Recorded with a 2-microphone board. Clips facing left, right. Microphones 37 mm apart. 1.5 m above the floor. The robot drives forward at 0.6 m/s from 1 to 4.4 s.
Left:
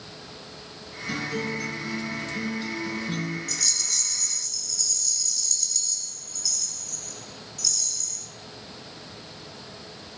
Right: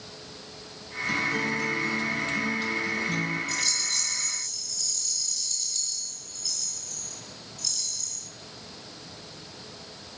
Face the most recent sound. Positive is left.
turn(degrees=-30)  # may be behind; listen again after turning